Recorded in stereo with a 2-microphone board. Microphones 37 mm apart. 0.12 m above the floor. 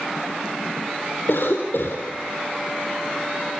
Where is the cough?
75° left (ahead or behind), 3.5 m.